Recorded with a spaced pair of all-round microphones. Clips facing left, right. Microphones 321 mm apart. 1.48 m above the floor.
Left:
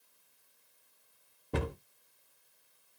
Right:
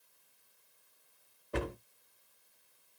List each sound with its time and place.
1.5 s a cupboard door: 45° left (ahead or behind), 1.0 m